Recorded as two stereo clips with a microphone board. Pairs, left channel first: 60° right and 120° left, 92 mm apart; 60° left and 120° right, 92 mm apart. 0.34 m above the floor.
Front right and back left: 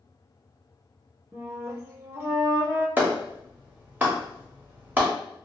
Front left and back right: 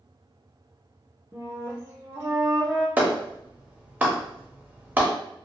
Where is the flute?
Straight behind, 0.9 m.